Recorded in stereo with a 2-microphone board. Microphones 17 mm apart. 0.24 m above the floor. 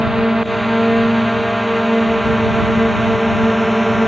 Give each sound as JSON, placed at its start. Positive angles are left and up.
{"t": 0.0, "sound": "a drone", "side_deg": -25}